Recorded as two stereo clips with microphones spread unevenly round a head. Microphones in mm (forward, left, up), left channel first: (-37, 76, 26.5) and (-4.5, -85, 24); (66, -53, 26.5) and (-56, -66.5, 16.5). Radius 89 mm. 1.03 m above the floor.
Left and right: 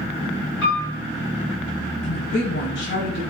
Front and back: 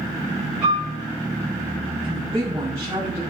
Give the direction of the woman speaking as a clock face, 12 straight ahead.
8 o'clock.